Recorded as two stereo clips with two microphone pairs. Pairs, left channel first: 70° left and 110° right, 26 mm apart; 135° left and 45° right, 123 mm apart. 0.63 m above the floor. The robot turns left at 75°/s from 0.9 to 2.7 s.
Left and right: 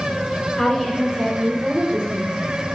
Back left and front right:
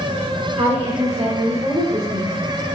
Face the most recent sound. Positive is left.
turn(degrees=-145)